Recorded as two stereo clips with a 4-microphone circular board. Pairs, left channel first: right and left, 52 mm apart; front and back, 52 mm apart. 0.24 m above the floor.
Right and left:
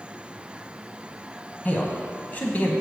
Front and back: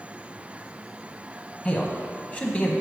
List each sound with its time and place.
1.6 s a man speaking: 50° right, 1.2 m